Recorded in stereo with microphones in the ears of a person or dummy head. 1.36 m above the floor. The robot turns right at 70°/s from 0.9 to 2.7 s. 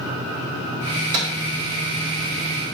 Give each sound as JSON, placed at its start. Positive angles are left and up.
{"t": 0.9, "sound": "a microwave", "side_deg": -75, "distance_m": 3.5}